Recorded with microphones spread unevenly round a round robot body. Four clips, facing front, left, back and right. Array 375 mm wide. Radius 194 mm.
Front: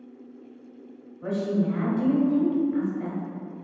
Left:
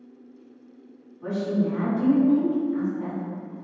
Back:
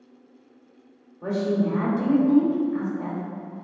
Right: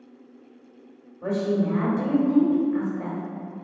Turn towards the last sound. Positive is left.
turn(degrees=-130)